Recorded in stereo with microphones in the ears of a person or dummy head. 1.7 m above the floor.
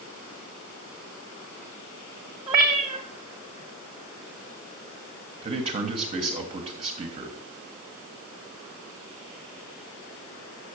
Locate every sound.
2.5 s a cat meowing: 20° right (ahead or behind), 0.9 m
5.4 s a man speaking: 35° right (ahead or behind), 1.4 m